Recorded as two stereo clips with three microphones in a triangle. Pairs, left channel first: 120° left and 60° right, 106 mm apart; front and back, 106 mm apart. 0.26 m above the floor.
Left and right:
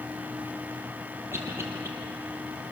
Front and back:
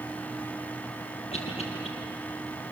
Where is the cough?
5° left, 6 m.